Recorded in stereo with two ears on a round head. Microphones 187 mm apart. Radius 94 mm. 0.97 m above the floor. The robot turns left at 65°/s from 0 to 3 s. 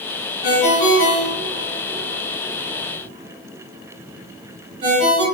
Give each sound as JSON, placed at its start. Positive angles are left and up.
{"t": 0.4, "sound": "a ringtone", "side_deg": 70, "distance_m": 1.7}